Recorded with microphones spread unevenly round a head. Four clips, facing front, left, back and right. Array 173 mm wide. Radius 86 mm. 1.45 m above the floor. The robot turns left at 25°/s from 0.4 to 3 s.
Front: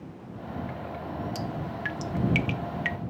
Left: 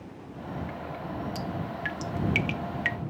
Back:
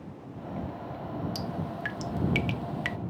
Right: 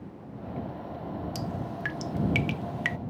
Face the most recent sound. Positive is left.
turn(degrees=-125)